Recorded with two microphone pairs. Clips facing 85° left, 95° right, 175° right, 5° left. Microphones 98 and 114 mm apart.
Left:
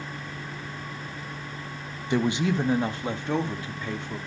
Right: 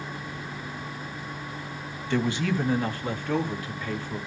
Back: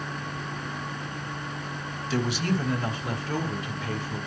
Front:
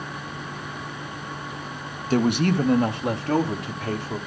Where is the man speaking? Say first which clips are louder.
Left 2 dB, front 7 dB; 20° left, 0.5 m.